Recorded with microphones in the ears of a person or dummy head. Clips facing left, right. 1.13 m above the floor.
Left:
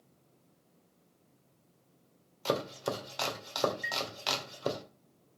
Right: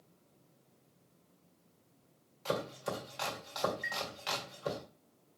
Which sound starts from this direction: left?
Chopping, at 2.5 s.